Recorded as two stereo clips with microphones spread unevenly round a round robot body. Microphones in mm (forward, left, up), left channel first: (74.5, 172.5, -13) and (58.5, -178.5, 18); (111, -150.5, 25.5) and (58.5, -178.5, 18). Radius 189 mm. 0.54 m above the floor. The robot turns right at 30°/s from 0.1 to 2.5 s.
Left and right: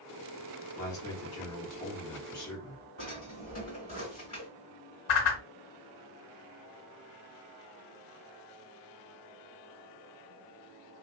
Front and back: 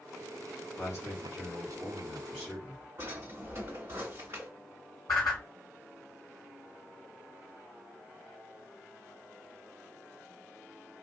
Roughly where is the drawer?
Behind left.